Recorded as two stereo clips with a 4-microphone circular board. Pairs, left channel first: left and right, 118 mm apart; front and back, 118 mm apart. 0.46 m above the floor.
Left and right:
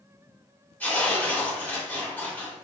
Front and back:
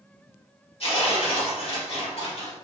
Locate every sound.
0.8 s tearing paper: 15° left, 1.3 m